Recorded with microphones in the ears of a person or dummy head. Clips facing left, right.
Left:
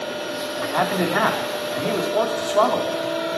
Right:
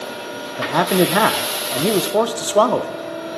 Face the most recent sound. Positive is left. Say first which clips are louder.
# right 6 dB
turn(degrees=-50)  # may be behind; listen again after turning